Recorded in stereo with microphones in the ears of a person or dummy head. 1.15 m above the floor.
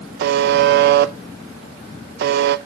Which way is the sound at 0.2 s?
55° right (ahead or behind).